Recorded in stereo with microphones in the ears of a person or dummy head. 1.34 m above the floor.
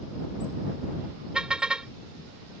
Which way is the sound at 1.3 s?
Centre (ahead or behind).